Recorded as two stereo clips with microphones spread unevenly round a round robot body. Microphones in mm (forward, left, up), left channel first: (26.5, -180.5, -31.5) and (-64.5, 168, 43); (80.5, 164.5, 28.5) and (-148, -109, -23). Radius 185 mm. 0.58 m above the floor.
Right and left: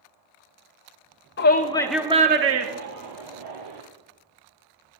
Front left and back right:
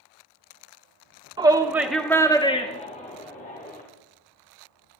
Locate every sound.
1.4 s a shout: 70° right, 1.6 m; by 3.8 s 120° left, 2.5 m